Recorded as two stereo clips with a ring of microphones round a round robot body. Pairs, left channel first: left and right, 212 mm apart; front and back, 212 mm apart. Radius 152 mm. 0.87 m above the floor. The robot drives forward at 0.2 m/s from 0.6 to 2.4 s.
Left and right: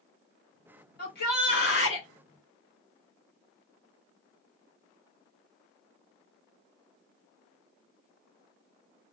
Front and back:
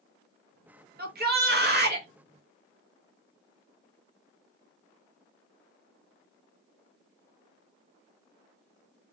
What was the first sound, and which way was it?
A shout, 140° left.